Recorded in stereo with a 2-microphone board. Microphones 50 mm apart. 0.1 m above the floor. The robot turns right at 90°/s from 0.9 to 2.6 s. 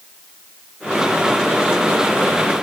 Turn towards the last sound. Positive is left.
No sound to turn to.